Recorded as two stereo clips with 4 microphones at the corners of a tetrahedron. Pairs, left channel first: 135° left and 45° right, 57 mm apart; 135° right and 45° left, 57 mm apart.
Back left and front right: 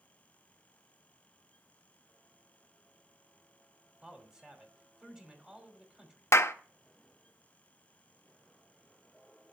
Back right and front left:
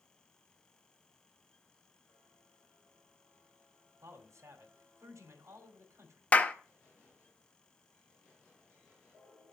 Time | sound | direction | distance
4.0 | a man speaking | 30° left | 2 m
6.3 | a clap | 165° left | 0.6 m